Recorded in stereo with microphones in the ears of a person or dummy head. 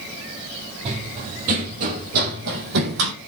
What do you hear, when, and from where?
0.8 s running footsteps: 40° right (ahead or behind), 2.5 m; by 3.1 s 65° right (ahead or behind), 2.5 m